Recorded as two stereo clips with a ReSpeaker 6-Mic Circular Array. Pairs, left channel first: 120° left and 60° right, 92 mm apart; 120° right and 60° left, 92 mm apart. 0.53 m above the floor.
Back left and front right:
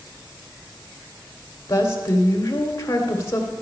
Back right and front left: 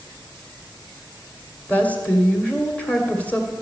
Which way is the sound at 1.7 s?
170° left.